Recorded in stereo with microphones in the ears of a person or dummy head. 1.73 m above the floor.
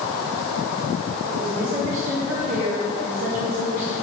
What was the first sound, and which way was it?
A woman speaking, 60° right (ahead or behind).